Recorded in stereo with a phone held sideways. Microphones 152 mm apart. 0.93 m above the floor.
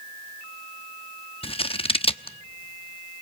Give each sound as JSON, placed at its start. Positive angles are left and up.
{"t": 1.4, "sound": "scissors", "side_deg": 40, "distance_m": 0.8}